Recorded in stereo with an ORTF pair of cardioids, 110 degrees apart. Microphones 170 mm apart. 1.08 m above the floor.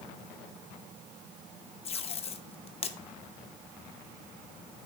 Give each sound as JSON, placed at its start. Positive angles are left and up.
{"t": 1.9, "sound": "tape being pulled", "azimuth_deg": 35, "distance_m": 0.9}